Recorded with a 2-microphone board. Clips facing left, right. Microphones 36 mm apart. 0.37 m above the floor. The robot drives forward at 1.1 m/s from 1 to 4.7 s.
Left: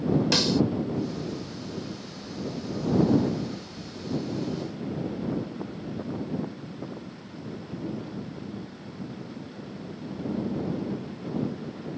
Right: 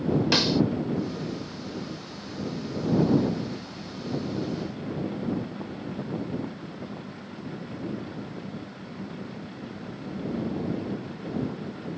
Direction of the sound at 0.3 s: 15° right (ahead or behind).